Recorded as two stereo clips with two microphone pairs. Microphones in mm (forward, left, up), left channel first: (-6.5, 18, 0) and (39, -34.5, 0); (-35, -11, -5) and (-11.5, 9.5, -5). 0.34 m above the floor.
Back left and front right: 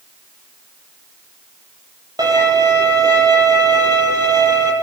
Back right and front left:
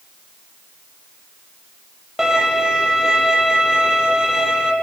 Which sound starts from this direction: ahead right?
A violin, at 2.2 s.